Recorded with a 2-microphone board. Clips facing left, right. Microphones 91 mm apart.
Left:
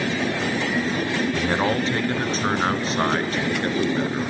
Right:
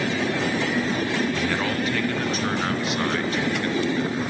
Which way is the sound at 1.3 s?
25° left (ahead or behind).